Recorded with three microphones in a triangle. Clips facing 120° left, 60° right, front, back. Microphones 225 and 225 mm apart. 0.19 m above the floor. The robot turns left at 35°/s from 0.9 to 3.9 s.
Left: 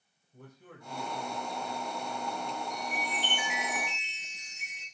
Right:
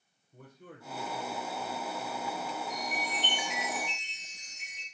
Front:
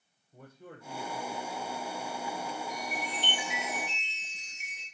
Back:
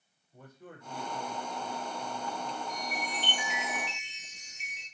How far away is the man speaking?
About 7 m.